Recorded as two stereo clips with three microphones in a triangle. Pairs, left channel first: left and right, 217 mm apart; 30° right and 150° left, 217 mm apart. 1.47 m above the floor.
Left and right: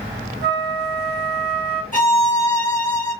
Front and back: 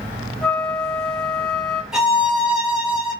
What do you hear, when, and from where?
0.4 s a flute: 115° right, 0.6 m
1.9 s a violin: 65° left, 1.2 m